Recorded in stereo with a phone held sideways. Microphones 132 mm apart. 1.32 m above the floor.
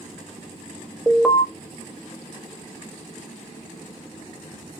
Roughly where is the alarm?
Centre.